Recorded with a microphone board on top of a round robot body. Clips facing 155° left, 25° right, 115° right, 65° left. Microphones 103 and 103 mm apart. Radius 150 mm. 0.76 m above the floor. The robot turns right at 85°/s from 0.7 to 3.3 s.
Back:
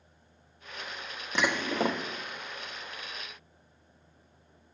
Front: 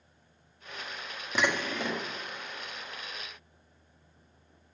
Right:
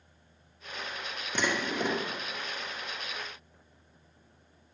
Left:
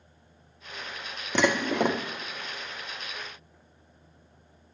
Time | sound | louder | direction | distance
1.4 | dishes clattering | back 1 dB, left 7 dB | 65° left | 0.9 m